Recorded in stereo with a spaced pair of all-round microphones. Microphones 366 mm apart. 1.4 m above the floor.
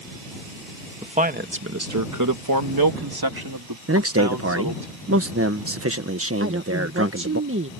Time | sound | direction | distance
1.0 | a man speaking | 15° right (ahead or behind) | ?
3.9 | a man speaking | 40° right (ahead or behind) | ?
6.4 | a woman speaking | 35° right (ahead or behind) | ?